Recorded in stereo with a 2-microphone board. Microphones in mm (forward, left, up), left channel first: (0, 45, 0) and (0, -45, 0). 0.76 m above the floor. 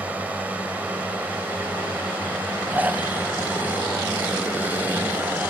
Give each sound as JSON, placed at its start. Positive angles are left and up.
{"t": 0.0, "sound": "a drone", "side_deg": -15}
{"t": 2.7, "sound": "snoring", "side_deg": -20}